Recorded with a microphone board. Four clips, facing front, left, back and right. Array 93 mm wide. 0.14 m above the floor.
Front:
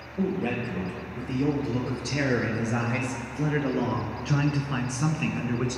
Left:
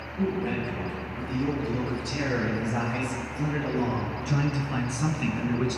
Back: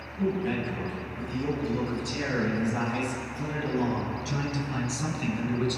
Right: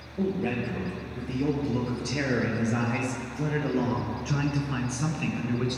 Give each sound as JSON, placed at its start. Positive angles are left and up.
{"t": 0.2, "sound": "a man speaking", "azimuth_deg": -35, "distance_m": 4.0}